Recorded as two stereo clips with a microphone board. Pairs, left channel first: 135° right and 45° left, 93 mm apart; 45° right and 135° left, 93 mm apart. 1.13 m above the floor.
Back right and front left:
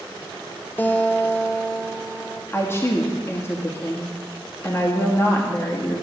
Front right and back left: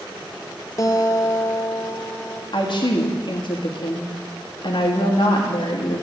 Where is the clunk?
No clunk in this recording.